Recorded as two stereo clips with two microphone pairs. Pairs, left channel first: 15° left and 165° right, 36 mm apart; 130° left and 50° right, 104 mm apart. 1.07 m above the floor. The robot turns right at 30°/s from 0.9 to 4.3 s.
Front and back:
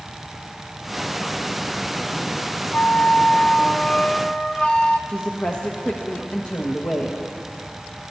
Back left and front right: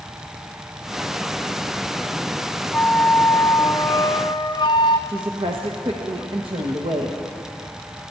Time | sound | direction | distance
2.7 | a flute | 40° left | 0.7 m
5.1 | a woman speaking | 35° right | 1.1 m